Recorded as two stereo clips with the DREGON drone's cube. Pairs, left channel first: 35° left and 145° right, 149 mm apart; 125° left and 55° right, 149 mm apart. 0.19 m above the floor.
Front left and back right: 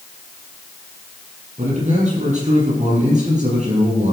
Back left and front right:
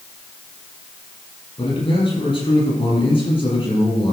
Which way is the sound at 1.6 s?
Straight behind.